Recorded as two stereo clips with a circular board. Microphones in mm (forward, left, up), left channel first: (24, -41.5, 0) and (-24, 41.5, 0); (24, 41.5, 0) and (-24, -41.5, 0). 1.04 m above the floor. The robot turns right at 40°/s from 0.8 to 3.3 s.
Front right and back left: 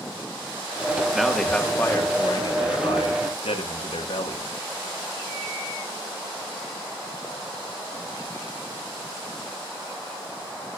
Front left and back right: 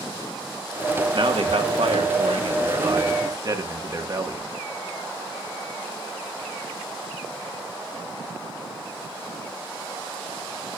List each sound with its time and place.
1.1 s a man speaking: 155° right, 1.6 m; by 4.5 s 70° right, 1.6 m